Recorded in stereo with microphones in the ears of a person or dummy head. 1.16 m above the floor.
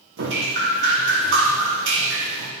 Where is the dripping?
60° right (ahead or behind), 1.4 m.